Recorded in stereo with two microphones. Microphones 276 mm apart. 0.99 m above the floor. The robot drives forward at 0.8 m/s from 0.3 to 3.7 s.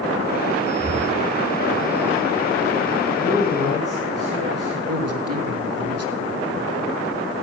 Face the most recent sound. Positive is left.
turn(degrees=-60)  # may be behind; listen again after turning